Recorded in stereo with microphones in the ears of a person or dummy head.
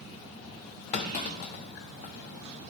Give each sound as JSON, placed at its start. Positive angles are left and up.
{"t": 0.9, "sound": "a clunk", "side_deg": 40, "distance_m": 0.7}